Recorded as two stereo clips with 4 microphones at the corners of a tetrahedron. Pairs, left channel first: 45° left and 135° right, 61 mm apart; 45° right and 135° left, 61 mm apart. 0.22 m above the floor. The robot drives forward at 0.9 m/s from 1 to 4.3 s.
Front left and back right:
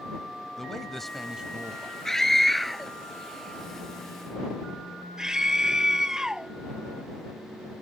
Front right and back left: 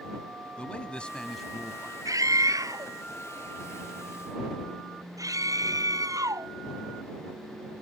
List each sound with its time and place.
0.6 s a man speaking: 30° right; by 1.9 s 165° right
2.0 s a scream: 125° left; by 6.5 s 145° left